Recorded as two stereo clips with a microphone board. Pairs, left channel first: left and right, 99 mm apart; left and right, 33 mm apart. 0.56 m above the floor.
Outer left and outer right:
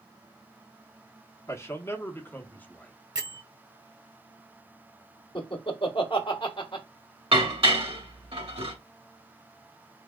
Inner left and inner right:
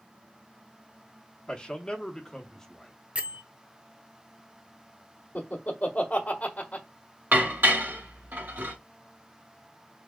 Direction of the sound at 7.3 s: 75° right (ahead or behind).